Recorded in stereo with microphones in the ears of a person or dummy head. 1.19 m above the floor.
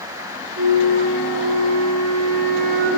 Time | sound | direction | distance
0.6 | a flute | 60° right (ahead or behind) | 6 m